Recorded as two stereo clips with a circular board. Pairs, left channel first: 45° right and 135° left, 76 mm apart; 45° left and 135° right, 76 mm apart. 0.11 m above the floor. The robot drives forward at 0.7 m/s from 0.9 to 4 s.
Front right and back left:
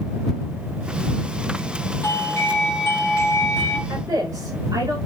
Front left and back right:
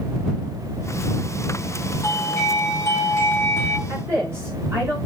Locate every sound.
2.0 s a doorbell: straight ahead, 3 m; by 3.8 s 5° left, 2 m
3.9 s a woman speaking: 170° left, 9.5 m